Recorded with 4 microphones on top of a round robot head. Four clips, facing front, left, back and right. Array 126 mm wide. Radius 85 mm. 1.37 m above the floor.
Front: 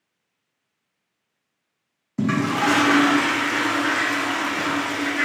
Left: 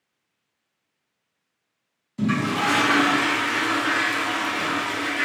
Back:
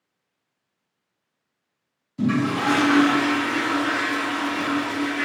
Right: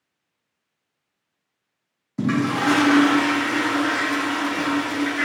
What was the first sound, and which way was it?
A toilet flushing, 40° right.